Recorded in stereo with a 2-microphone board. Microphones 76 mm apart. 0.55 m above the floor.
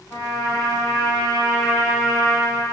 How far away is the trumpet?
About 2.5 m.